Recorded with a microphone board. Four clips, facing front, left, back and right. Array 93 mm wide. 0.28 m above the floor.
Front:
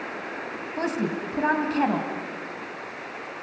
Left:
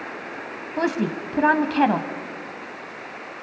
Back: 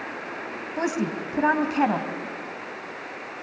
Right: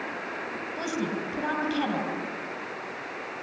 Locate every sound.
0.8 s a woman speaking: 105° left, 2 m